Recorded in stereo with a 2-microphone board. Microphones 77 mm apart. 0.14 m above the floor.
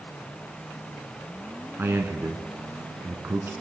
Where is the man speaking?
35° right (ahead or behind), 1.3 m.